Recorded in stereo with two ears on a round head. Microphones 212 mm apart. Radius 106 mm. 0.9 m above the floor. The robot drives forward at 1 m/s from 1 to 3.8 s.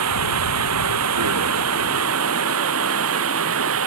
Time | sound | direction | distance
0.0 | running water | 75° right (ahead or behind) | ?